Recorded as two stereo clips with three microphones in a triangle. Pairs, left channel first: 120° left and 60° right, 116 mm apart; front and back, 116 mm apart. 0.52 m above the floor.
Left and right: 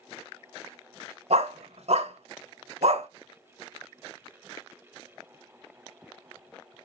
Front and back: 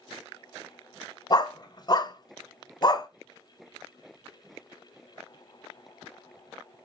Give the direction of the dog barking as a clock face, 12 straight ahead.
2 o'clock.